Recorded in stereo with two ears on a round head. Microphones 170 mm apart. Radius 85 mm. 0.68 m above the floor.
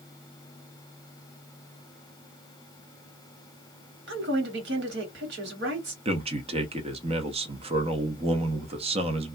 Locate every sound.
4.1 s a woman speaking: 65° right (ahead or behind), 1.4 m
6.0 s a man speaking: 30° right (ahead or behind), 0.6 m